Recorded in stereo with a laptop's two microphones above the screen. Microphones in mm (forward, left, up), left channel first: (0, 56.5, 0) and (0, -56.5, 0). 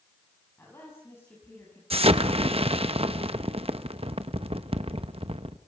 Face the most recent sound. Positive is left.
turn(degrees=-60)  # may be behind; listen again after turning